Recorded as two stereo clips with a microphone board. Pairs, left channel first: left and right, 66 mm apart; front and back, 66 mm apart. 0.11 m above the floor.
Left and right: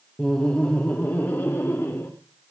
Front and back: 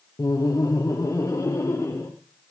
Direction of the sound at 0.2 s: 15° left.